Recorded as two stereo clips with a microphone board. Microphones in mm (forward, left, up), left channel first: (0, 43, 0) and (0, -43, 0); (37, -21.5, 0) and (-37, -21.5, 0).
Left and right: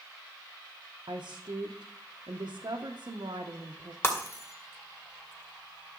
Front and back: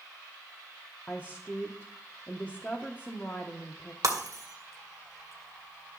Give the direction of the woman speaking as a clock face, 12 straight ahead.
2 o'clock.